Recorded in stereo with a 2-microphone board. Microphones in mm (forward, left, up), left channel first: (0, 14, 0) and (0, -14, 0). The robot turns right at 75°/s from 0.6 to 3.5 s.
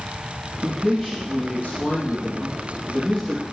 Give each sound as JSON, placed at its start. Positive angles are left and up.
{"t": 0.6, "sound": "a man speaking", "azimuth_deg": -30, "distance_m": 4.0}